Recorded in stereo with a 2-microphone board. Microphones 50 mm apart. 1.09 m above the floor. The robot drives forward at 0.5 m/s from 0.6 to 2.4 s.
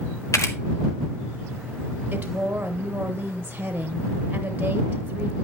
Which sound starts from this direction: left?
A camera shutter, at 0.3 s.